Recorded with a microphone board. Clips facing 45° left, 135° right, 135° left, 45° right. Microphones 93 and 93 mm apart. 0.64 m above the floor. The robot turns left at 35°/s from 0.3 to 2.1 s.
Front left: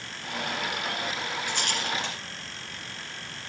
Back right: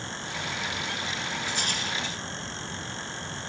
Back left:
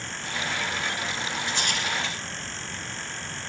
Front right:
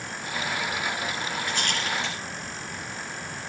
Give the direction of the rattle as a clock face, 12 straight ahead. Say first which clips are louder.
Front left 1 dB, even; 10 o'clock.